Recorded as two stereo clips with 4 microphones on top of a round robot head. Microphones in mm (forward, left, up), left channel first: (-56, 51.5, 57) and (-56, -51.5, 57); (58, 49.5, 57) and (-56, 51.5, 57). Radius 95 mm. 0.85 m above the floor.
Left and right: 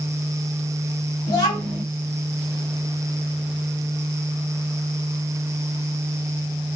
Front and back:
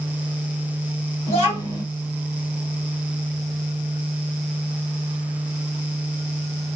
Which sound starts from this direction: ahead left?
A child speaking, at 1.3 s.